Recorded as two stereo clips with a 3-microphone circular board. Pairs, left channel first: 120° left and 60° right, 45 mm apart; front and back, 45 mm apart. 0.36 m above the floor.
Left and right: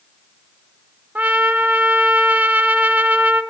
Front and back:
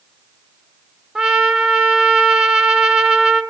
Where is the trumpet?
105° right, 0.6 m.